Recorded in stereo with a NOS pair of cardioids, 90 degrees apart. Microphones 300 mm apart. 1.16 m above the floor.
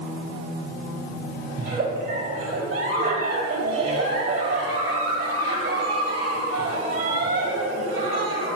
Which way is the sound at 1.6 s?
45° right.